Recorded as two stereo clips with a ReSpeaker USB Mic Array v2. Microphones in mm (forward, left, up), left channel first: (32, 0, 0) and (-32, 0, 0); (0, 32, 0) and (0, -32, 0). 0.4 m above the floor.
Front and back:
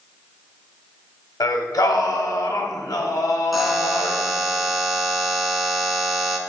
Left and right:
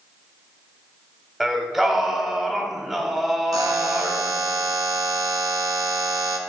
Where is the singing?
5° right, 0.6 m.